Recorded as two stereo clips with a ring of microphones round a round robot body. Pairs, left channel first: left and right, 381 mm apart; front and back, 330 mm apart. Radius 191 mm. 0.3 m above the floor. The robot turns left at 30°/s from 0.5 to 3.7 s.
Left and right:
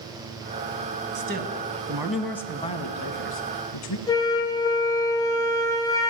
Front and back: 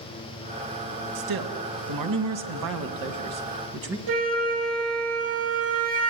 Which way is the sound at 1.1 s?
150° right.